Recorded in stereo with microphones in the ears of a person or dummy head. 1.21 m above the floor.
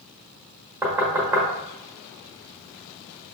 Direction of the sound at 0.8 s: 15° right (ahead or behind).